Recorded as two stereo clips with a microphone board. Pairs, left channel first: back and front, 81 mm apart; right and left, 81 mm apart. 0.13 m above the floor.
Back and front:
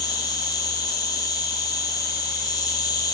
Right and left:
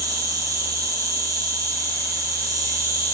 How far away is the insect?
About 1.2 m.